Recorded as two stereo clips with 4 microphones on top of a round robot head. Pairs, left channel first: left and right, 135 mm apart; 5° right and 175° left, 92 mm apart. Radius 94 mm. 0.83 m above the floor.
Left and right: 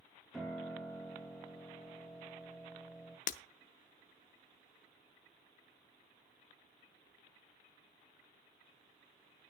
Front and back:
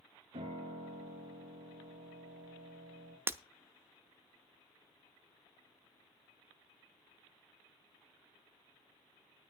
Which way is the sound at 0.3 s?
Straight behind.